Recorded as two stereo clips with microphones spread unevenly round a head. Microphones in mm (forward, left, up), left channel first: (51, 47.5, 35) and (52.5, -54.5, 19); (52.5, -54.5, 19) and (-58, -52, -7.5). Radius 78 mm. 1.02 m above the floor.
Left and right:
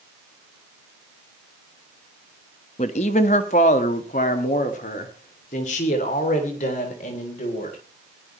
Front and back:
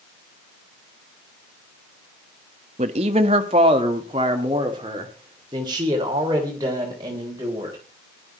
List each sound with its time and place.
2.8 s a man speaking: 135° left, 1.1 m; by 7.8 s 110° left, 4 m